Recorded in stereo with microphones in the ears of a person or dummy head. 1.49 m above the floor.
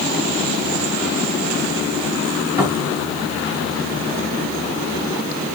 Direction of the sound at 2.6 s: 20° right (ahead or behind).